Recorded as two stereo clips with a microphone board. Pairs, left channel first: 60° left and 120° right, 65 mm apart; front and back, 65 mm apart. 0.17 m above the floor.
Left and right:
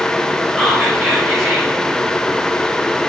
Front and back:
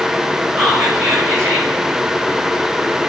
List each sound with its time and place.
0.6 s whispering: 165° left, 1.0 m